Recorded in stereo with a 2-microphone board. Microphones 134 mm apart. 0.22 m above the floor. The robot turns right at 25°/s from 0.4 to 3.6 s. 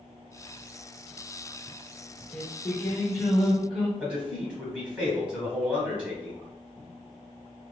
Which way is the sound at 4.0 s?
10° right (ahead or behind).